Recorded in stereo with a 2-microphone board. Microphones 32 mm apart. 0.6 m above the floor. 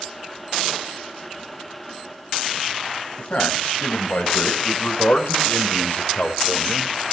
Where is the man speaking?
55° left (ahead or behind), 5 m; by 6.9 s 50° left (ahead or behind), 2.5 m.